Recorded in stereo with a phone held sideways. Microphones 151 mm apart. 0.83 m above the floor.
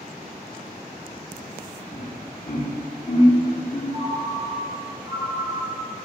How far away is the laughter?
About 2.5 m.